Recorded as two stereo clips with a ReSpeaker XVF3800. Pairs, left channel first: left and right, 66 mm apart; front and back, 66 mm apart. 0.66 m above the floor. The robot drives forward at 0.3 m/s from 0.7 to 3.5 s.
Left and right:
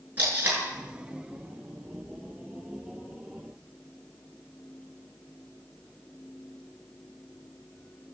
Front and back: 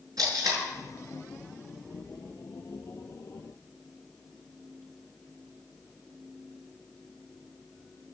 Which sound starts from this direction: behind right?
Tape being pulled, at 0.2 s.